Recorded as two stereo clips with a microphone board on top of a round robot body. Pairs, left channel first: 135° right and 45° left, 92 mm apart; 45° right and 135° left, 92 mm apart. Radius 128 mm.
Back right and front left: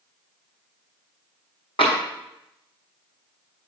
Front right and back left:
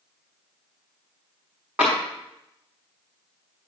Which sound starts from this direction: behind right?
Tapping, at 1.8 s.